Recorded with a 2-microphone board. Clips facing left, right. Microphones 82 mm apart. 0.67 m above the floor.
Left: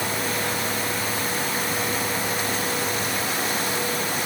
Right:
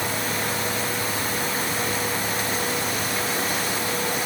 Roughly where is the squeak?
No squeak in this recording.